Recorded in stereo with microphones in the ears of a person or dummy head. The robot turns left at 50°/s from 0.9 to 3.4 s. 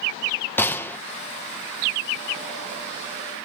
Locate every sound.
0.6 s a gunshot: 5° left (ahead or behind), 0.8 m; by 1.0 s centre (ahead or behind), 0.8 m